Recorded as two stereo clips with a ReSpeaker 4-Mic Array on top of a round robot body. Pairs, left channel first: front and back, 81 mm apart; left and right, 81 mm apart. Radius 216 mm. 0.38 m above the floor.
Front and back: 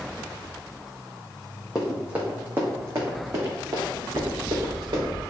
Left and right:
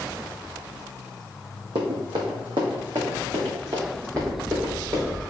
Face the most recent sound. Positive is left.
turn(degrees=-135)